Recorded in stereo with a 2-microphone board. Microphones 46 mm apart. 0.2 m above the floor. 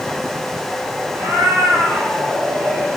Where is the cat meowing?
60° right (ahead or behind), 3 m; by 2.9 s 70° right (ahead or behind), 4 m.